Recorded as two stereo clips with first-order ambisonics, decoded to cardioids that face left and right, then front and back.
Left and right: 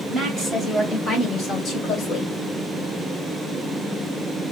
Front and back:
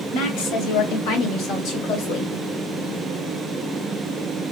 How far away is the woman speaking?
About 2.5 m.